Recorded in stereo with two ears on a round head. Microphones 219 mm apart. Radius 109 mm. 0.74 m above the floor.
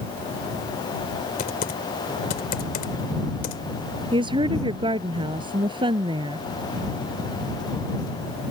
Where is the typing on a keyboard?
40° left (ahead or behind).